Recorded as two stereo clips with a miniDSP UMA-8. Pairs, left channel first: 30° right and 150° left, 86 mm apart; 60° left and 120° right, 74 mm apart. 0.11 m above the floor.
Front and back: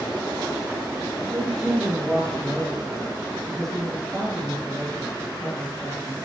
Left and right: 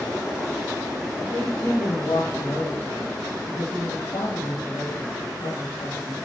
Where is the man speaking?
55° left, 4.5 m.